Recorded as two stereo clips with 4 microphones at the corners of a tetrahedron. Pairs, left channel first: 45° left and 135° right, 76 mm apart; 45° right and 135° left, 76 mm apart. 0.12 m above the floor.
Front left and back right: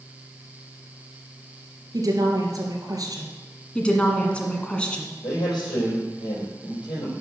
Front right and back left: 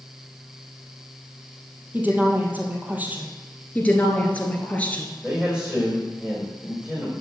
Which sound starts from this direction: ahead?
A woman speaking, at 3.8 s.